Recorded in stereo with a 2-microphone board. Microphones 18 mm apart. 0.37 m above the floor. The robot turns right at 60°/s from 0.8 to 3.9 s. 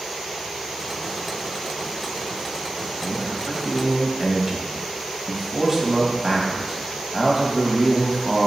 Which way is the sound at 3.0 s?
55° right (ahead or behind).